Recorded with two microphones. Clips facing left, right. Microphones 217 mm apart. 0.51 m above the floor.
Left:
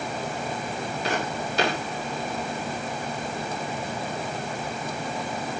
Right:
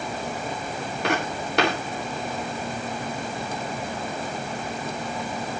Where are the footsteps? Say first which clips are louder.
Right 3 dB; 65° right (ahead or behind), 8 m.